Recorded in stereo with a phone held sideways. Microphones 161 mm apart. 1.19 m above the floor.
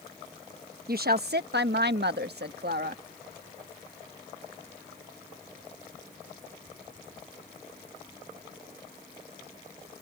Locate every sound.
0.9 s a woman speaking: 60° right (ahead or behind); by 3.0 s 65° right (ahead or behind)